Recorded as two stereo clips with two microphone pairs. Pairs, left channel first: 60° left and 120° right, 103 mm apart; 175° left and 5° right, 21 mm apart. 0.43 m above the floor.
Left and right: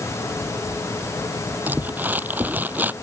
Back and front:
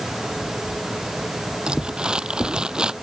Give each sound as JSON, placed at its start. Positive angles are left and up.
{"t": 1.7, "sound": "crumpling", "azimuth_deg": -50}